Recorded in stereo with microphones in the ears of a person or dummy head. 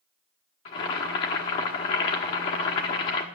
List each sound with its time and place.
0.7 s boiling: 25° left (ahead or behind), 1.1 m